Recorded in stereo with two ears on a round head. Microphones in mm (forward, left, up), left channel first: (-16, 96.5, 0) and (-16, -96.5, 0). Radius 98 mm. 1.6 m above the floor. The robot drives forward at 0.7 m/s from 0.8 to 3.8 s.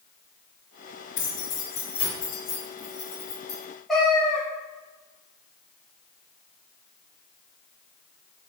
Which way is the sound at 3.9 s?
5° left (ahead or behind).